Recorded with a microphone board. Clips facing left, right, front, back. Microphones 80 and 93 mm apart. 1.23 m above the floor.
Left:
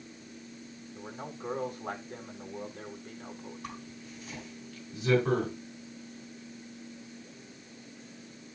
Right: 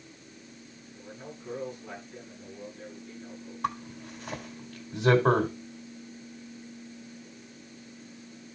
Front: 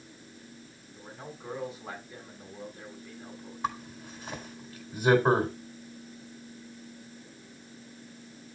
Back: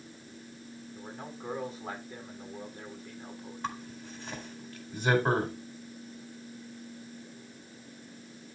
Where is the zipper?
80° right, 4 m.